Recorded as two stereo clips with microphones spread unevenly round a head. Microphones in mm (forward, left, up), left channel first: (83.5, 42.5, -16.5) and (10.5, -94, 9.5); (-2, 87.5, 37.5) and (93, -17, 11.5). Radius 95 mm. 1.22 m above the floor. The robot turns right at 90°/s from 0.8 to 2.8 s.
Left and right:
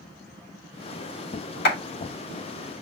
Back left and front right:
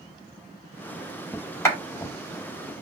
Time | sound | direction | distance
1.6 | a clap | 60° left | 3 m